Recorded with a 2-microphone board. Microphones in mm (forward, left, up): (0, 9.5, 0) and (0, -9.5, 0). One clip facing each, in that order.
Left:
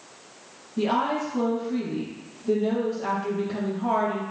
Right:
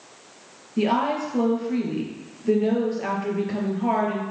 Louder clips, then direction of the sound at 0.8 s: Right 2 dB; 60° right (ahead or behind).